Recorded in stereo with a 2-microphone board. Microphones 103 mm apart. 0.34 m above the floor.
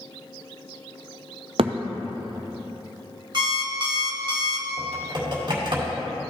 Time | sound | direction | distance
1.6 | a thud | 65° right (ahead or behind) | 0.6 m
3.3 | an alarm clock | 50° right (ahead or behind) | 1.0 m
4.8 | typing on a keyboard | 50° right (ahead or behind) | 2.0 m